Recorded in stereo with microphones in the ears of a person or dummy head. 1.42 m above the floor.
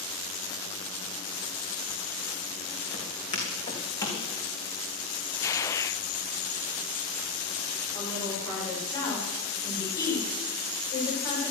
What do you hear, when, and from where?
2.9 s footsteps: 35° left (ahead or behind), 4 m; by 4.2 s 20° left (ahead or behind), 3.5 m
5.4 s a gunshot: 15° left (ahead or behind), 0.9 m
7.9 s a woman speaking: 20° left (ahead or behind), 6 m